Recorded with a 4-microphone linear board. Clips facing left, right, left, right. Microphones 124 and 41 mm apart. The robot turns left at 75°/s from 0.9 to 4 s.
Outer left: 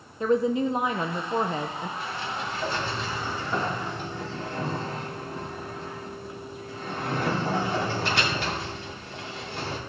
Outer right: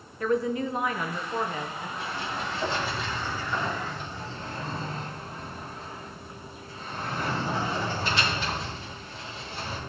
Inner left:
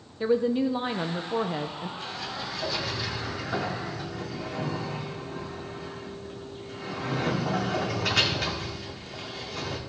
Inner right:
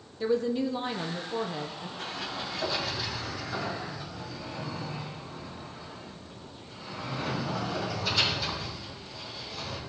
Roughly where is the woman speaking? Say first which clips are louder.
Outer left 3 dB, inner left 3 dB; behind left.